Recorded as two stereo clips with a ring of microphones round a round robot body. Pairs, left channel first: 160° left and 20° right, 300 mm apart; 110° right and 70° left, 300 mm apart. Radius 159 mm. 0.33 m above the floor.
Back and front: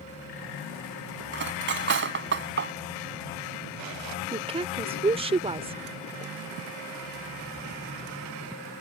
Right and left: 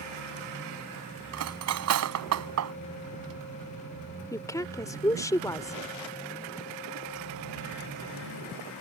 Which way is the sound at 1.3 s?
30° left.